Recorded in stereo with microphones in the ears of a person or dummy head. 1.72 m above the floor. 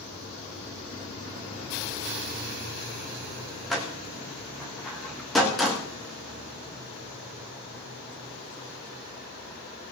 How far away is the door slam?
About 2 m.